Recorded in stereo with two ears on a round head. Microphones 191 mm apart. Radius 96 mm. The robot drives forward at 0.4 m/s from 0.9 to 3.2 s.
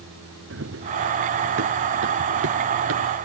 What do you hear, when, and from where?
0.5 s running footsteps: 60° right (ahead or behind); by 3.1 s 65° right (ahead or behind)